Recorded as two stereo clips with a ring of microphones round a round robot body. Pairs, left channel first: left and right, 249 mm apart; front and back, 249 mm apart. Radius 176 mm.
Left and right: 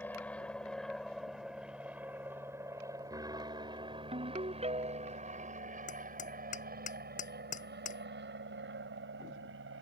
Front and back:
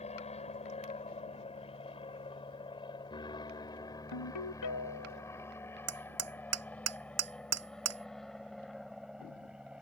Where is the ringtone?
25° right.